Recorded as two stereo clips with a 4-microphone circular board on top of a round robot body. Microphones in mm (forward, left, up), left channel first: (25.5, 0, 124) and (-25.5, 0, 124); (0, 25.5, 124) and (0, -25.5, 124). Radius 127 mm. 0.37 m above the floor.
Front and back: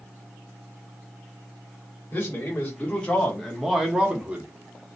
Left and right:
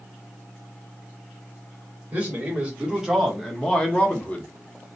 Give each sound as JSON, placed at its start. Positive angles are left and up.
{"t": 2.1, "sound": "a man speaking", "azimuth_deg": -35, "distance_m": 1.6}